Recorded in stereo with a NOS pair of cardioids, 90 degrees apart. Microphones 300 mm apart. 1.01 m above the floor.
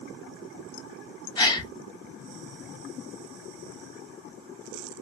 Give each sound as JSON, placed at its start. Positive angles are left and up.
{"t": 1.4, "sound": "a gasp", "azimuth_deg": 15, "distance_m": 0.7}